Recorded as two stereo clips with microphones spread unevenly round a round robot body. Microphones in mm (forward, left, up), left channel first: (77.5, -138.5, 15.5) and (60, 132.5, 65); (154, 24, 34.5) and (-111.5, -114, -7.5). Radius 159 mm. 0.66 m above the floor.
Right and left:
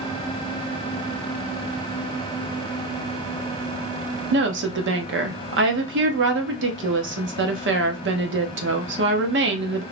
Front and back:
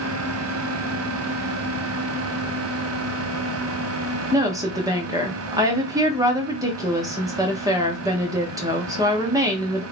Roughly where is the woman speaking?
Behind left.